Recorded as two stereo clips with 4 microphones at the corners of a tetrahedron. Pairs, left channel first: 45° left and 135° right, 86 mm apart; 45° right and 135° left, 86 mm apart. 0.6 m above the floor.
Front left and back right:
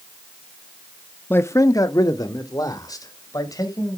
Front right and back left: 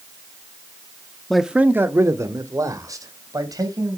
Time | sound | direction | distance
1.3 | a man speaking | 30° left | 0.6 m